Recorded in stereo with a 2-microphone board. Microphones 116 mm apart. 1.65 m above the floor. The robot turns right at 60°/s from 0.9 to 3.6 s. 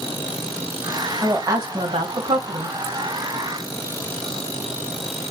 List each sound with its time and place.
1.2 s a woman speaking: 160° right, 1.2 m; by 2.8 s 70° right, 1.2 m